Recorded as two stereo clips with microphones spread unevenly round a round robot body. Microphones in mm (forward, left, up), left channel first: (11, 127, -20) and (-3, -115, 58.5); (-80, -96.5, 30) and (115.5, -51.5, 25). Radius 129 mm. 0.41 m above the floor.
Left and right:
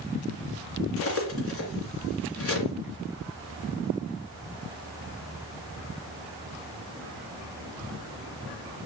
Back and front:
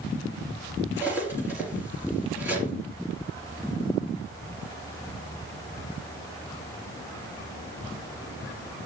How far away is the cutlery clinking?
About 2.5 m.